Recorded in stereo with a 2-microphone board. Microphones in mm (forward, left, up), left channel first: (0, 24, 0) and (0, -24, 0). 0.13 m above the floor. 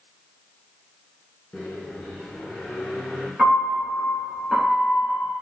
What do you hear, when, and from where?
1.5 s a microwave: 25° left (ahead or behind), 1.6 m
3.4 s a piano: 15° right (ahead or behind), 2.0 m